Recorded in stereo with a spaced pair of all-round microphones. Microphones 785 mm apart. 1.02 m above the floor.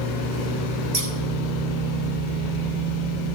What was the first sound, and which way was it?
Scissors, 40° right (ahead or behind).